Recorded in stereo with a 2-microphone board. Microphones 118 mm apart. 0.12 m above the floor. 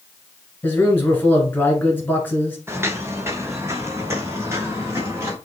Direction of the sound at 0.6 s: 20° left (ahead or behind).